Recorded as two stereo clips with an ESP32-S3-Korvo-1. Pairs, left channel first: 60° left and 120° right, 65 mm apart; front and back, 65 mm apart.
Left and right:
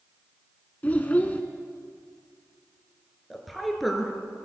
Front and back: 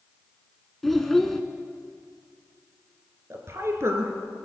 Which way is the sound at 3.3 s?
150° left.